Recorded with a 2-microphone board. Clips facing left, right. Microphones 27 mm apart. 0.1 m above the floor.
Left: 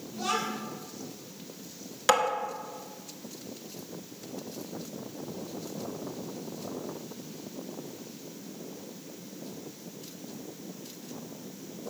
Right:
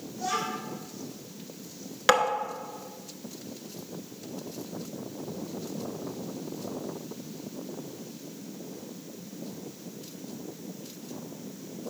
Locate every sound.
0.1 s a child speaking: 50° left (ahead or behind), 2.5 m
2.1 s tapping: 20° right (ahead or behind), 1.0 m